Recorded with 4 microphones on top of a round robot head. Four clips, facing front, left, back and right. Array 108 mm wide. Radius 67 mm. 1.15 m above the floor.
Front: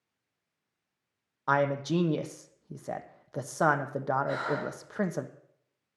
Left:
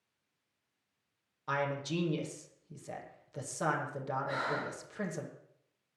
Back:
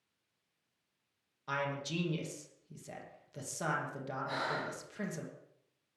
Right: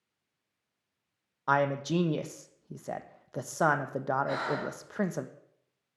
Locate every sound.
1.5 s a man speaking: 40° right, 0.8 m
4.3 s breathing: 80° right, 4 m